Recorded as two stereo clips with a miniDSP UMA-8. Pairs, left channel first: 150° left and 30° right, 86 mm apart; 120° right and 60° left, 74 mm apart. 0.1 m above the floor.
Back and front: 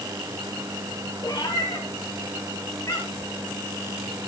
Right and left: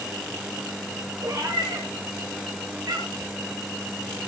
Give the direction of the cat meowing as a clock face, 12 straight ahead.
9 o'clock.